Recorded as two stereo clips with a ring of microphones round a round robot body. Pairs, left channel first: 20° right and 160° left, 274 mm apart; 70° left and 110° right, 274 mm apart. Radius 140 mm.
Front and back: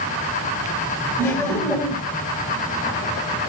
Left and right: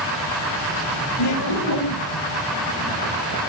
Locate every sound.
1.2 s laughter: 60° left, 3 m